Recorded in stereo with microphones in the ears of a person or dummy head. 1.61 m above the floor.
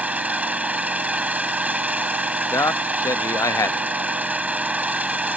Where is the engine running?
10° right (ahead or behind).